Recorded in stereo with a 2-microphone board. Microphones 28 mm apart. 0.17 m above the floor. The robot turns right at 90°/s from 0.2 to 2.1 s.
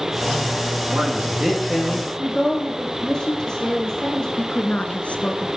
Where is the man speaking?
75° right, 9.5 m; by 2.1 s 35° left, 9.5 m.